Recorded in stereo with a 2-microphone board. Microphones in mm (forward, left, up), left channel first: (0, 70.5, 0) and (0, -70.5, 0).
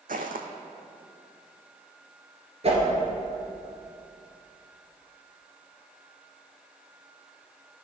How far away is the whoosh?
About 2.0 m.